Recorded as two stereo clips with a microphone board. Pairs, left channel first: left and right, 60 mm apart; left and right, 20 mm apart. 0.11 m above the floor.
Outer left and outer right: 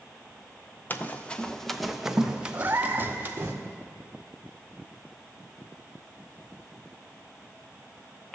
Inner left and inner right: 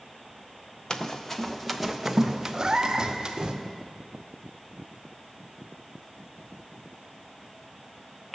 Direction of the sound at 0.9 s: 35° left (ahead or behind).